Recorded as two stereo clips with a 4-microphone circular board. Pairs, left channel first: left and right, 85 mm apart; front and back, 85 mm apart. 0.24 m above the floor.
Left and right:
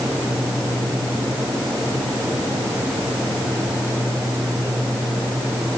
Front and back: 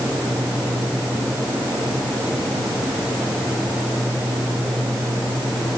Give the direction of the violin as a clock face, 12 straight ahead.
No violin in this recording.